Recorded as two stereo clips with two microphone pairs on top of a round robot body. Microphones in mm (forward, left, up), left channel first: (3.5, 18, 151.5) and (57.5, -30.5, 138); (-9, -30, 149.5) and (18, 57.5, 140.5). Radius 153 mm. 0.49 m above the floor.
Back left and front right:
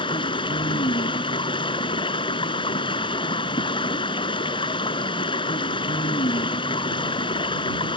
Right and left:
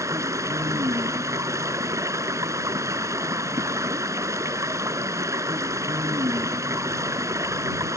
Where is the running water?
135° left.